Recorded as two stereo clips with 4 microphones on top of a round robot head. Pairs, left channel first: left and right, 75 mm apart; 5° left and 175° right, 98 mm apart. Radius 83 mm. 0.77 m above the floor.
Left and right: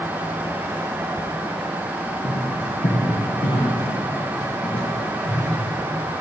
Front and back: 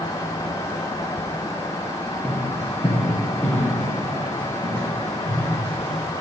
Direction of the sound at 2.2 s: 90° left.